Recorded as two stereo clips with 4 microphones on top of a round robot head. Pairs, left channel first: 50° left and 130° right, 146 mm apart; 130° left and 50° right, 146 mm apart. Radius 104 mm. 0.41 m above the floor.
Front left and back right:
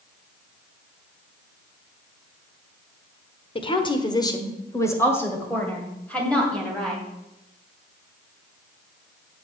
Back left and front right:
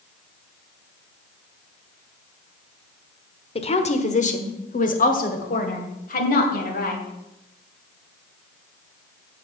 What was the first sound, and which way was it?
A woman speaking, 95° left.